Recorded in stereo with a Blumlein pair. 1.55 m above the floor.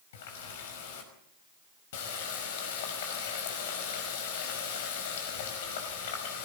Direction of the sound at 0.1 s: 55° left.